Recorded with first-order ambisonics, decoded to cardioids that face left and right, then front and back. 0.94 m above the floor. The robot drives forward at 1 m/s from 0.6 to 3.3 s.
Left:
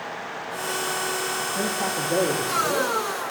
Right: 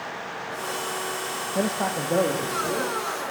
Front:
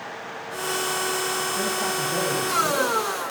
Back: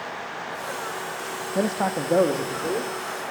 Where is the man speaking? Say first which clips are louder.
Even, even; 150° right, 0.5 m; by 2.9 s 170° right, 1.8 m.